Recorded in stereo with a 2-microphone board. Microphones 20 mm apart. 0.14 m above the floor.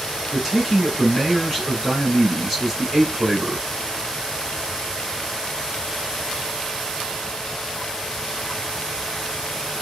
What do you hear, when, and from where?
0.3 s a man speaking: 15° right (ahead or behind), 1.7 m